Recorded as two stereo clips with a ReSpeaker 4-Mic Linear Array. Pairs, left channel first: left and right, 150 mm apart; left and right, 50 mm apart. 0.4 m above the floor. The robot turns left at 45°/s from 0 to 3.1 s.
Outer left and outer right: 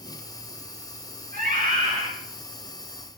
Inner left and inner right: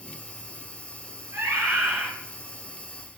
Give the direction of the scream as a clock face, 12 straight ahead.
4 o'clock.